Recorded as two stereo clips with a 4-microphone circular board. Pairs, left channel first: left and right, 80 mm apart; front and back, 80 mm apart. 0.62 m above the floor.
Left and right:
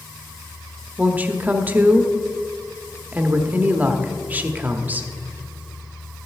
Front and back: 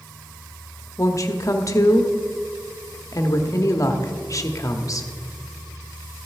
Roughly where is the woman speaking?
Ahead right.